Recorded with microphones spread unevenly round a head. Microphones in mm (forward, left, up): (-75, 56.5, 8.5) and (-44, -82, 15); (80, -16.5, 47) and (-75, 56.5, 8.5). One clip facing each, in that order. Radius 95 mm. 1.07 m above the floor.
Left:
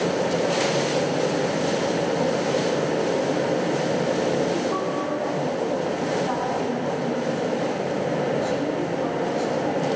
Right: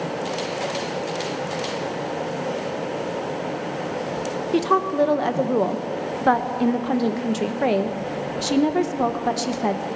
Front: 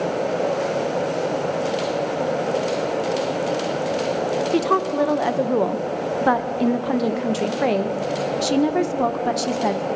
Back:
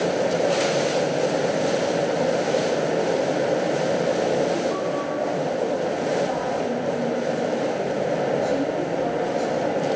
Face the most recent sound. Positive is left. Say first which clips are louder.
# right 4 dB, front 4 dB
turn(degrees=-45)